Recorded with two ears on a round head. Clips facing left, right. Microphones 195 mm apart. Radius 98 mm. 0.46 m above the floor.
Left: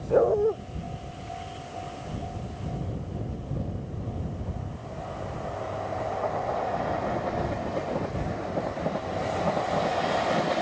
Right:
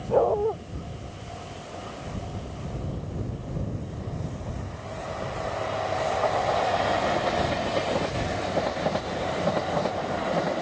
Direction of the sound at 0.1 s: 20° left (ahead or behind).